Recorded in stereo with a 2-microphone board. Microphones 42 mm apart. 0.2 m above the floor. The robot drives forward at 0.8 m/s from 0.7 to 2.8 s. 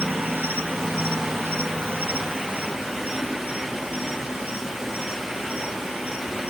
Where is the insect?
60° right (ahead or behind), 1.2 m; by 6.5 s 40° right (ahead or behind), 1.7 m.